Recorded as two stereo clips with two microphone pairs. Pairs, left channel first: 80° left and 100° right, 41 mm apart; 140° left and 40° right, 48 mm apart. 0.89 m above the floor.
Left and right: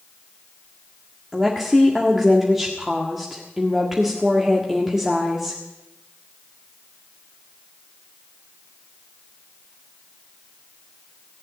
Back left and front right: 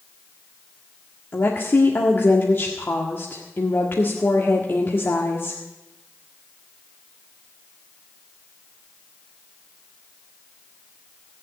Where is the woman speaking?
Straight behind, 1.7 m.